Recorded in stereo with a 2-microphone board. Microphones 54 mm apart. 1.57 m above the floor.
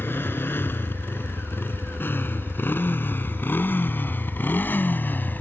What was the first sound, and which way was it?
A motorcycle, 40° left (ahead or behind).